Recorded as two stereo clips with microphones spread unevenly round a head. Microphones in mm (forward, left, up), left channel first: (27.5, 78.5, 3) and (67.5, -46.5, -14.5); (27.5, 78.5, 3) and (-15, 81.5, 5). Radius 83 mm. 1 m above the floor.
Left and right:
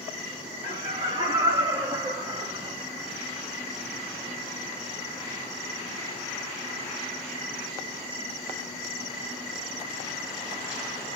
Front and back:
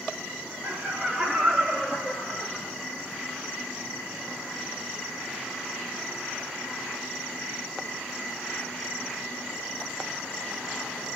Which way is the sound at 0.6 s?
120° right.